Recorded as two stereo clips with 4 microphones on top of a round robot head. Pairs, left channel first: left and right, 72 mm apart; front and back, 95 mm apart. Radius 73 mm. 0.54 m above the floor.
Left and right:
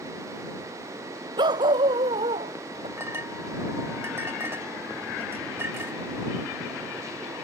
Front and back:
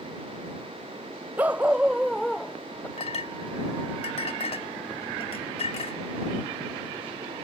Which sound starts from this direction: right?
A dog barking, at 1.4 s.